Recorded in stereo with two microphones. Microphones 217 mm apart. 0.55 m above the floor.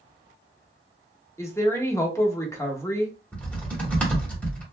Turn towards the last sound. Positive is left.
turn(degrees=5)  # may be behind; listen again after turning